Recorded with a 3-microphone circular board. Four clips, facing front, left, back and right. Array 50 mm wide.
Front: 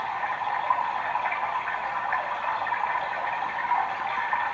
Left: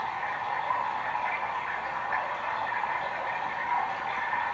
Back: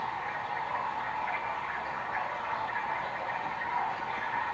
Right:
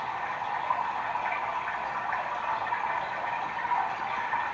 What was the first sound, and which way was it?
Running water, straight ahead.